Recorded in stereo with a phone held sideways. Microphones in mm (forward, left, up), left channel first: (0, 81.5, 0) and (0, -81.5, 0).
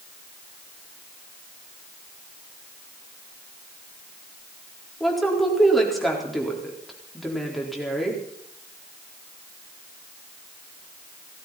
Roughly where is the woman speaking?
Centre.